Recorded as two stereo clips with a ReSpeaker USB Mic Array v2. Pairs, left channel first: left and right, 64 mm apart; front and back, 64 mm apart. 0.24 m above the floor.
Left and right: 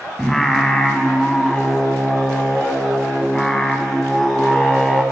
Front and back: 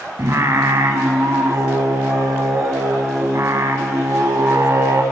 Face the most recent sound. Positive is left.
turn(degrees=170)